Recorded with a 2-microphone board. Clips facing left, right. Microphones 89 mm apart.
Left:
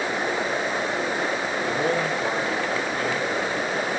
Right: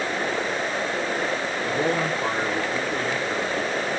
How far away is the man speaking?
About 5.5 m.